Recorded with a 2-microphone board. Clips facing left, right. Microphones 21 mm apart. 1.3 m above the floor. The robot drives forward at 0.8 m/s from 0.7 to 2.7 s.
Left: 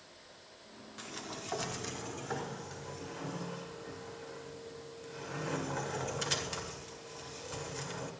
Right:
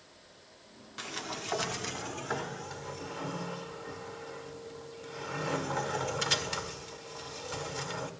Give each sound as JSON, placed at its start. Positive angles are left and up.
{"t": 1.0, "sound": "a sliding door", "side_deg": -25, "distance_m": 0.9}